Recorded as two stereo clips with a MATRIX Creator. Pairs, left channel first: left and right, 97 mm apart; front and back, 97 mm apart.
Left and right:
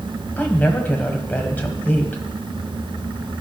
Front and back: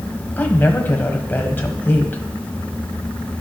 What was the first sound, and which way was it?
A woman speaking, 40° left.